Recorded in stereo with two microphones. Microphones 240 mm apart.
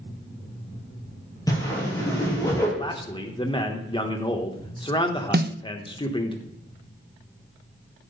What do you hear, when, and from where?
1.5 s a whoosh: 15° left (ahead or behind), 4.5 m
2.8 s a man speaking: 20° left (ahead or behind), 1.2 m
5.3 s a snare drum: 45° right (ahead or behind), 0.5 m